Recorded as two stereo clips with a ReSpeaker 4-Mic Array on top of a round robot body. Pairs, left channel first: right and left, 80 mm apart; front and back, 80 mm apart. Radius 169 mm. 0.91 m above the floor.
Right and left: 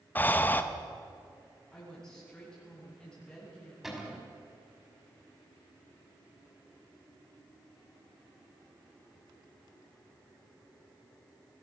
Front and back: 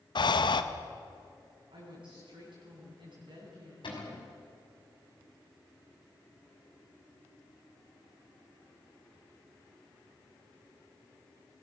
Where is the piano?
No piano in this recording.